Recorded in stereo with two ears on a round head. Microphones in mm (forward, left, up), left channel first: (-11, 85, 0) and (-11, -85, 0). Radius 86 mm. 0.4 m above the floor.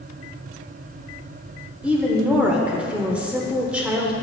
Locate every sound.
1.8 s a woman speaking: 5° right (ahead or behind), 0.8 m